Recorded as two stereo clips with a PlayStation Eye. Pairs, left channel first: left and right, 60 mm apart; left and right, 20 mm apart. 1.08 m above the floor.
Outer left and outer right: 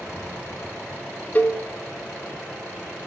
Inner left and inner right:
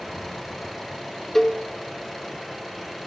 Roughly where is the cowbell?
Left.